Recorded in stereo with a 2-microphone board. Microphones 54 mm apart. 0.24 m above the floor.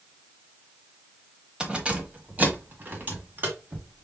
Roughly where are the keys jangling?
Centre.